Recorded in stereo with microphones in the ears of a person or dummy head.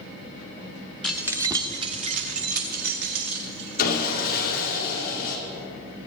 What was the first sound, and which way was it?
Keys jangling, 5° right (ahead or behind).